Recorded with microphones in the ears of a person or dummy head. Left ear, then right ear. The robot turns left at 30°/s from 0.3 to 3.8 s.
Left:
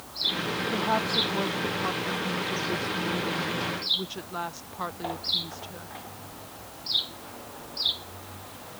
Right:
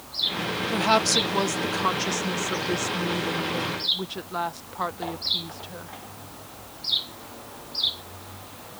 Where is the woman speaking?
65° right; by 5.9 s 155° right.